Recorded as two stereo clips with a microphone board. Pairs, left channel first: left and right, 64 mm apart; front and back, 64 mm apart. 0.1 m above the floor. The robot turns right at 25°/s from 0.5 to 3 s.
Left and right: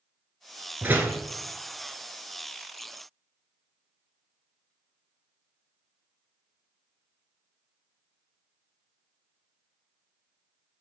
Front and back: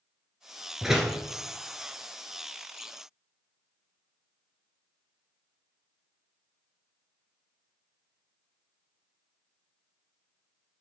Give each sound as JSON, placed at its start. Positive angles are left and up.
{"t": 0.8, "sound": "a door slam", "azimuth_deg": -105, "distance_m": 1.1}